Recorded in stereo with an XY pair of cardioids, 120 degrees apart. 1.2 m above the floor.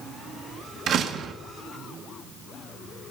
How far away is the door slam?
About 1.8 m.